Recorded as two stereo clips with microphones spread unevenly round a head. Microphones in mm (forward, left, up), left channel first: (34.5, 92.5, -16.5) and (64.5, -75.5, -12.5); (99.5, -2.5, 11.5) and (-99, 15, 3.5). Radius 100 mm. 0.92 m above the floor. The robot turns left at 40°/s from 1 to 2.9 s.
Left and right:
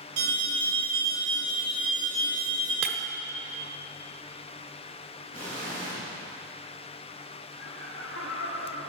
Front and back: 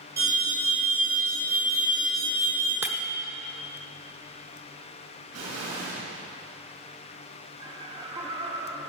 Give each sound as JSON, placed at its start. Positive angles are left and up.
{"t": 0.2, "sound": "an alarm", "azimuth_deg": -110, "distance_m": 6.5}
{"t": 2.8, "sound": "breaking glass", "azimuth_deg": -105, "distance_m": 1.2}
{"t": 5.3, "sound": "an explosion", "azimuth_deg": 165, "distance_m": 5.5}
{"t": 7.6, "sound": "laughter", "azimuth_deg": 110, "distance_m": 2.5}